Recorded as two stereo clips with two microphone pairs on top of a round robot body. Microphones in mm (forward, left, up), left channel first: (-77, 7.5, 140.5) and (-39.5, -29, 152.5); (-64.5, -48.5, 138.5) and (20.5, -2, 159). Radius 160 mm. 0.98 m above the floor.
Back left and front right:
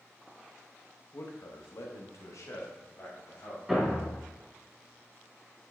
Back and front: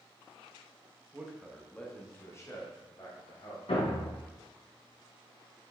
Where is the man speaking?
100° left, 1.3 m; by 3.6 s 165° left, 3.5 m.